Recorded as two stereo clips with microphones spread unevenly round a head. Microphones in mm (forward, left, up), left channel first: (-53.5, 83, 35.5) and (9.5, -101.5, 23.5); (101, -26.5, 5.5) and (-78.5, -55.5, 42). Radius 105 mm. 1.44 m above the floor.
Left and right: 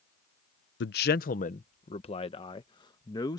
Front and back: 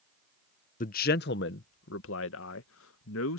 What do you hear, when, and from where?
0.8 s a man speaking: 65° left; by 3.4 s 35° left